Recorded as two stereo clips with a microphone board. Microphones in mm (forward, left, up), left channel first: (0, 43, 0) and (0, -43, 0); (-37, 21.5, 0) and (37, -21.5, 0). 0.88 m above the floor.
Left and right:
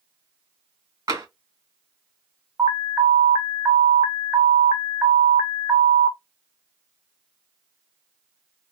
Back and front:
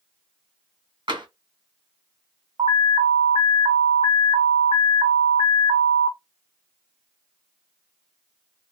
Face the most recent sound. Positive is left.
turn(degrees=-20)